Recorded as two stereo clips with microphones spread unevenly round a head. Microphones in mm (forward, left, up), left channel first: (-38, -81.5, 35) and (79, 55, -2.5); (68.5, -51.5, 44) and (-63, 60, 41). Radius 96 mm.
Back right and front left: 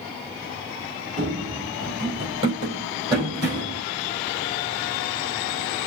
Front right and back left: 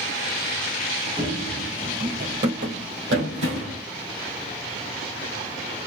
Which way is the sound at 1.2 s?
90° left.